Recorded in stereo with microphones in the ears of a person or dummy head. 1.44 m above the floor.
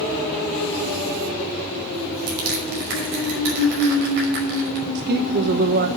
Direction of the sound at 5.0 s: 50° right (ahead or behind).